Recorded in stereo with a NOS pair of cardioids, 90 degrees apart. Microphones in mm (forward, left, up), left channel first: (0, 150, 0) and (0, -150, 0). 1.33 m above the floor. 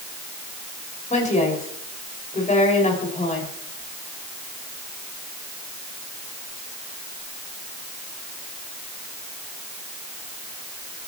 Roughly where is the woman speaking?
Ahead left.